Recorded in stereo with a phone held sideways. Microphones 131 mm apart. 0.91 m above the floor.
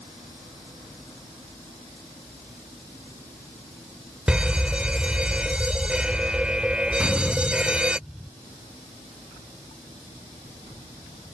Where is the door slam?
5° right (ahead or behind).